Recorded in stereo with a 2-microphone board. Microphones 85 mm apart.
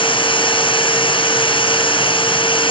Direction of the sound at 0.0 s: 75° left (ahead or behind).